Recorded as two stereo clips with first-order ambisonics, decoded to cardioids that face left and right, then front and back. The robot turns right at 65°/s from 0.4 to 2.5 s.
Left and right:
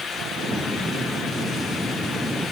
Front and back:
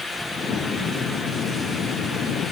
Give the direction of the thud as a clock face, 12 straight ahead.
I don't hear a thud.